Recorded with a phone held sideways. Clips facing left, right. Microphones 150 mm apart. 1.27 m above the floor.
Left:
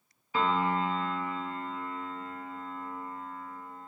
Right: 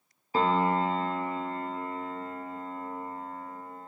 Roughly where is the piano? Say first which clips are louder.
Right 3 dB; right.